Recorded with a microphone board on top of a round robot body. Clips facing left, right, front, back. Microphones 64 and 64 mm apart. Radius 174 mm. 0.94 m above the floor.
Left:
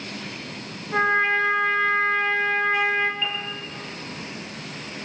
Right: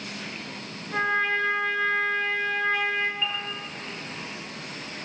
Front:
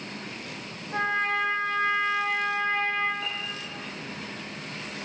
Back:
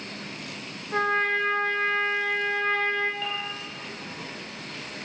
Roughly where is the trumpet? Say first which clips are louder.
Left 4 dB, back 2 dB; behind.